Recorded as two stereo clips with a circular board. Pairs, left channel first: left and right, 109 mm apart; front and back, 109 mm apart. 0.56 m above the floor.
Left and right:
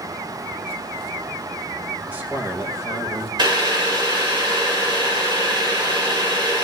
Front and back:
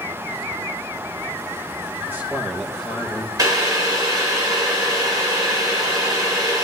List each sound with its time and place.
2.1 s a man speaking: 145° right, 1.1 m; by 3.3 s 65° right, 1.2 m
3.4 s boiling: 130° right, 2 m